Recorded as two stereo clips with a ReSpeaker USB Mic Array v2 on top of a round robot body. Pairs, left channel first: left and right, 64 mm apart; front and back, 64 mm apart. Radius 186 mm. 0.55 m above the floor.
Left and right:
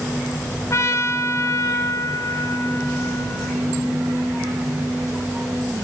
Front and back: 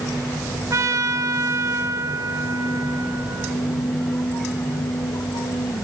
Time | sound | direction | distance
0.7 | a trumpet | 140° left | 1.9 m